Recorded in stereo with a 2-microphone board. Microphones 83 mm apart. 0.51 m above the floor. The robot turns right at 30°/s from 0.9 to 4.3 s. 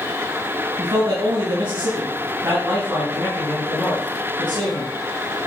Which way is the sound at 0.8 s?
85° right.